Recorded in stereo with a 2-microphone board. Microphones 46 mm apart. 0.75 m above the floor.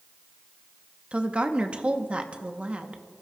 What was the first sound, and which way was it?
A woman speaking, 25° right (ahead or behind).